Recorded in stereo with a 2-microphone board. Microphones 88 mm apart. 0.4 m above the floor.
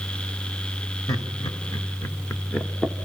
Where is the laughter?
45° left (ahead or behind), 1.9 m; by 3.0 s 5° left (ahead or behind), 1.0 m.